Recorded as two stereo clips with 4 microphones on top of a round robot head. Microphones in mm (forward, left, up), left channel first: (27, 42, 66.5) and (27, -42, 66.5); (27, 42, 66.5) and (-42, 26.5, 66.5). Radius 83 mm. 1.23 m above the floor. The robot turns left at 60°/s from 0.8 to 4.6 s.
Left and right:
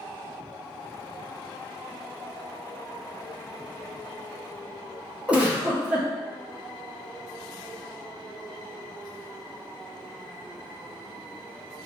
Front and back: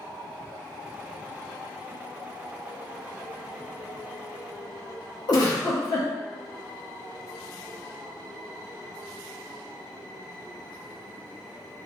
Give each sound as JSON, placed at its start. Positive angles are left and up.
{"t": 5.3, "sound": "a giggle", "azimuth_deg": -15, "distance_m": 1.0}